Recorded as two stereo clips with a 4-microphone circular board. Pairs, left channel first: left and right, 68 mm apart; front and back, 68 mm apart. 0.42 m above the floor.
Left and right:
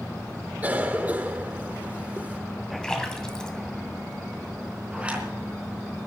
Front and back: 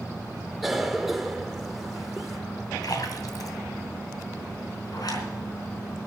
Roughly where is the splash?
Ahead.